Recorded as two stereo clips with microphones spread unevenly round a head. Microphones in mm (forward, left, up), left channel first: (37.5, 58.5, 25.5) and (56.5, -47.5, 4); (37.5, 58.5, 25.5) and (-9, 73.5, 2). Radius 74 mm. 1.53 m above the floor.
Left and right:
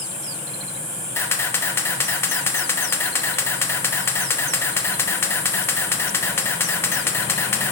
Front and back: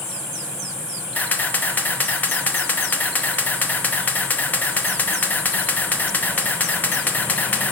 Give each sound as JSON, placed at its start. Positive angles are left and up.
{"t": 1.1, "sound": "a camera shutter", "azimuth_deg": 35, "distance_m": 2.5}